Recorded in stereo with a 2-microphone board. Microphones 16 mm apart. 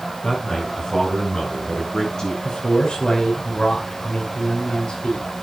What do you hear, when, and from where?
0.2 s a man speaking: 35° left (ahead or behind), 8 m; by 2.3 s 45° left (ahead or behind), 9 m
2.4 s a man speaking: 65° left (ahead or behind), 5 m